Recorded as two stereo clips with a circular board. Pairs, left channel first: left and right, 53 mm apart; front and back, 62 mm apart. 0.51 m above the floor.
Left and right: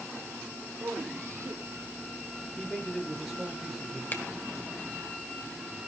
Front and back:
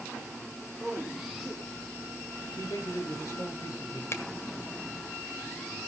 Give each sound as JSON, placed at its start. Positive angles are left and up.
{"t": 0.8, "sound": "a man speaking", "azimuth_deg": -95, "distance_m": 2.5}
{"t": 2.6, "sound": "a man speaking", "azimuth_deg": 0, "distance_m": 7.0}
{"t": 4.1, "sound": "a finger snap", "azimuth_deg": 40, "distance_m": 1.6}